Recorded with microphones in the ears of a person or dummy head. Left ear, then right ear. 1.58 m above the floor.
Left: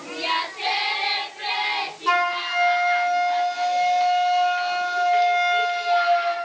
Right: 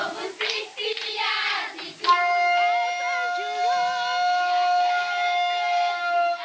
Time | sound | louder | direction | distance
2.1 | a flute | right 3 dB | 15° left (ahead or behind) | 0.7 m